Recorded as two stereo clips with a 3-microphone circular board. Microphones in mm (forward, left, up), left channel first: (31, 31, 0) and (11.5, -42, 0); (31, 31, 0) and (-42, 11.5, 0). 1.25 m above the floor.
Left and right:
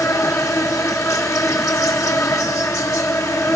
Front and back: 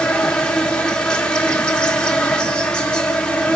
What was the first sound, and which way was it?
An insect, 85° left.